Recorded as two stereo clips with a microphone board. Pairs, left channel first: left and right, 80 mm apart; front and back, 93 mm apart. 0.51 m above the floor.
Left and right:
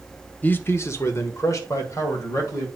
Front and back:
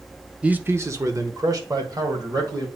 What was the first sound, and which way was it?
A man speaking, 115° left.